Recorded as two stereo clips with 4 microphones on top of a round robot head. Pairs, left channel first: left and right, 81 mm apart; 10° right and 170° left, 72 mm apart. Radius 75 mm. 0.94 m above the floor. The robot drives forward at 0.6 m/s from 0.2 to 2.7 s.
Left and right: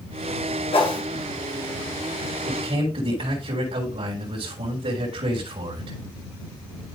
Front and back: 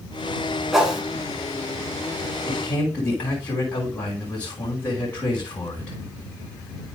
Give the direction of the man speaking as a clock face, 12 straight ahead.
3 o'clock.